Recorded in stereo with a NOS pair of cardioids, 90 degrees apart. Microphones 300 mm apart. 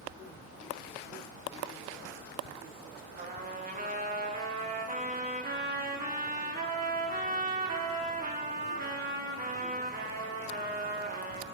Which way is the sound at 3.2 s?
30° right.